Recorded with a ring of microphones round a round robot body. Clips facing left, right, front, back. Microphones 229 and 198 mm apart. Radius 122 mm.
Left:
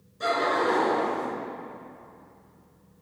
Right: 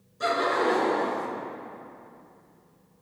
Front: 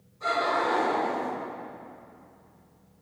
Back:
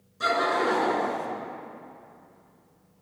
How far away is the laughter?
About 5 m.